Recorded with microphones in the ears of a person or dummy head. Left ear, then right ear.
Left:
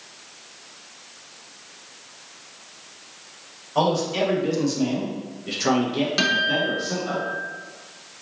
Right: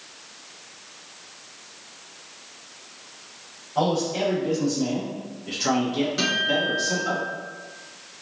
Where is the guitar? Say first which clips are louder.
Left 2 dB; 25° left (ahead or behind), 0.8 m.